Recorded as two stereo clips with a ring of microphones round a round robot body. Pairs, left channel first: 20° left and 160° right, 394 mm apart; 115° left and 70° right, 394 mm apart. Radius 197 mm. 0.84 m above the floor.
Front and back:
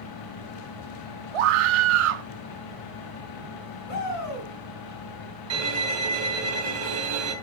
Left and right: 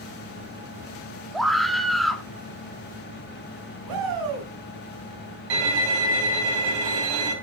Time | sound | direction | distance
1.3 | a scream | 160° right | 1.5 m
3.9 | a shout | 30° right | 5.5 m
5.5 | a violin | 105° right | 3 m